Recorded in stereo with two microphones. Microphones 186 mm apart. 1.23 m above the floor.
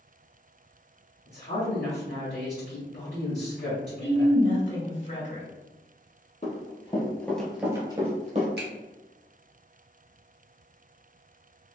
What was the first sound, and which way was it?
A woman speaking, 60° left (ahead or behind).